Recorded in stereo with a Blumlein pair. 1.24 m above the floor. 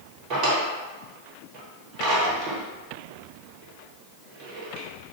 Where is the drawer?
35° right, 1.1 m.